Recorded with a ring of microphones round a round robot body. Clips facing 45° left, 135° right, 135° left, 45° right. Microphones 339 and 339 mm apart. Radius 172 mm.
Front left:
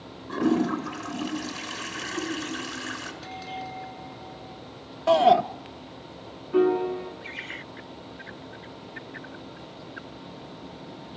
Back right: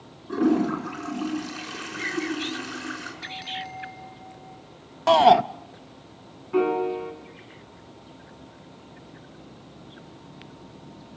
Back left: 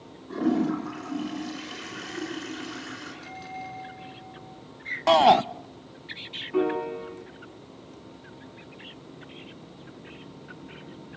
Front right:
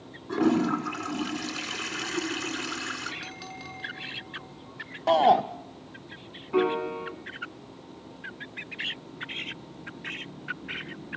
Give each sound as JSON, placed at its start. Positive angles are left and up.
{"t": 0.3, "sound": "a toilet flushing", "azimuth_deg": -30, "distance_m": 5.5}
{"t": 3.2, "sound": "a bell", "azimuth_deg": -55, "distance_m": 7.0}
{"t": 5.1, "sound": "a shout", "azimuth_deg": 170, "distance_m": 0.5}
{"t": 6.5, "sound": "a piano", "azimuth_deg": -65, "distance_m": 5.0}